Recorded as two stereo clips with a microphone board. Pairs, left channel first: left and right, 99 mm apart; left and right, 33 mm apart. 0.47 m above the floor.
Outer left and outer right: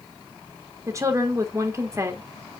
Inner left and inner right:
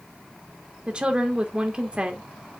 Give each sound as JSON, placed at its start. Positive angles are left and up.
{"t": 0.9, "sound": "a woman speaking", "side_deg": -30, "distance_m": 1.3}